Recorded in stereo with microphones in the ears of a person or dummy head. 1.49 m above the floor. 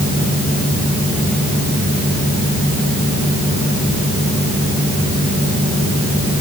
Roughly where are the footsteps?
I don't hear footsteps.